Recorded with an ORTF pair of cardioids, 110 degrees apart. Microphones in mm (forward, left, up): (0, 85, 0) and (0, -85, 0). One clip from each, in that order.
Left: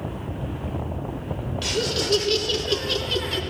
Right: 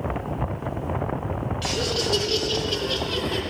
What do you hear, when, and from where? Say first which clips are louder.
1.6 s laughter: left 1 dB; 20° left, 2.5 m; by 3.4 s 75° left, 2 m